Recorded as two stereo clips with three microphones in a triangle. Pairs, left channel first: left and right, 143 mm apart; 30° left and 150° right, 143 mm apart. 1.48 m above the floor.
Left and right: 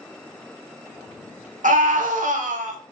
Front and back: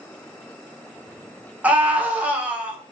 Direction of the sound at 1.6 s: 70° right.